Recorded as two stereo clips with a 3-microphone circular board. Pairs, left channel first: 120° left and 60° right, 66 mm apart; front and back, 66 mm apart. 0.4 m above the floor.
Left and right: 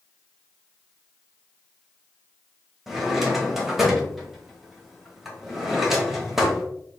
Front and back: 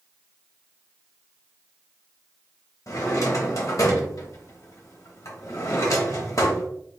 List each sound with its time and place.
2.9 s a drawer: 25° left, 0.9 m